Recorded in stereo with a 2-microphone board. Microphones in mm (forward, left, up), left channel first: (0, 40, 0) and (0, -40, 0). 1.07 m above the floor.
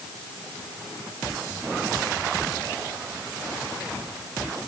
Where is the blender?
No blender in this recording.